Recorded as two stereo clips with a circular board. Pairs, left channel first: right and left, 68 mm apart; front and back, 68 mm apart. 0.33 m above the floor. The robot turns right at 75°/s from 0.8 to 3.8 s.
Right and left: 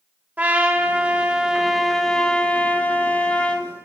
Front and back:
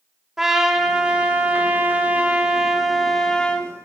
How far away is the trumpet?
About 1.0 m.